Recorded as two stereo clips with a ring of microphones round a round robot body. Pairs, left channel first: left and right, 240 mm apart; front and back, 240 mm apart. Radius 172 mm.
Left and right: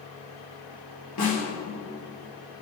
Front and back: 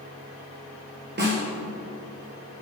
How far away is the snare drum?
About 2.5 m.